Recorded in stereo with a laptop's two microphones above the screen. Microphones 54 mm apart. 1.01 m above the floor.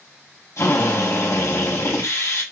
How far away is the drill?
About 5 m.